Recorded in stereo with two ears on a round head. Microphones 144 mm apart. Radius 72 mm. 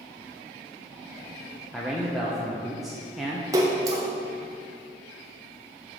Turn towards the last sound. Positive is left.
turn(degrees=-20)  # may be behind; listen again after turning